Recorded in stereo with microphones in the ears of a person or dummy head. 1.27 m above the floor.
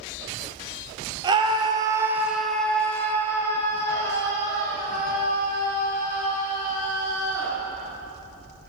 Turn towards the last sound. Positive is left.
turn(degrees=20)  # may be behind; listen again after turning